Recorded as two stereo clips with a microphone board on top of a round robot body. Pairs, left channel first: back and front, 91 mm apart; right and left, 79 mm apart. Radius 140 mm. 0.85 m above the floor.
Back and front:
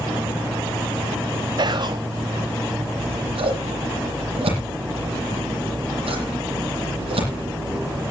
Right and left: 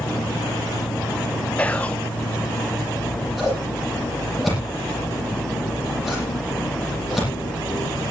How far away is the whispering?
About 0.9 m.